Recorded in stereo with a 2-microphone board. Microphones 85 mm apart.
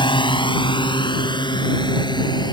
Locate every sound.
0.0 s a drone: 75° left (ahead or behind); by 2.5 s 60° left (ahead or behind)